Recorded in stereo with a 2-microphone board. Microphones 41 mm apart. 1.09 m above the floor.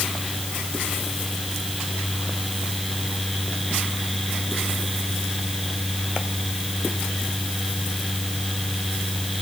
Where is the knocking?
I don't hear knocking.